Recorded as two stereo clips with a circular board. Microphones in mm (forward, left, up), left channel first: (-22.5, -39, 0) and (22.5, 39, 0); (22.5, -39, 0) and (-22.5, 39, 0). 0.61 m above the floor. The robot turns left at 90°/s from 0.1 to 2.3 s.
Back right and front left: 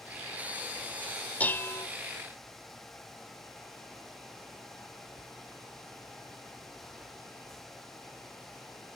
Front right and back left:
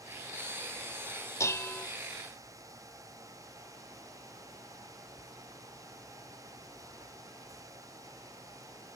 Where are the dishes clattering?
65° right, 0.5 m; by 1.9 s 105° right, 0.5 m.